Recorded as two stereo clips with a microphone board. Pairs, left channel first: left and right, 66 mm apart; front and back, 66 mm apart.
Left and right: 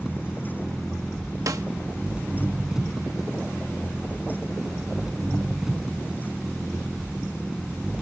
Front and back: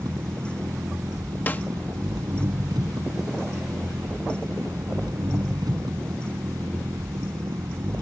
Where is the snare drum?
60° right.